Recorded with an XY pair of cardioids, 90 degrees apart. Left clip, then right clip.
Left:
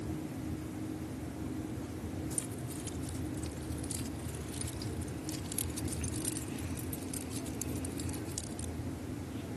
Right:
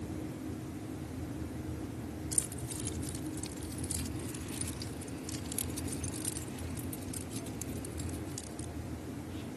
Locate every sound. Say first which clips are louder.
2.3 s keys jangling: right 2 dB; 50° right; by 8.7 s 35° left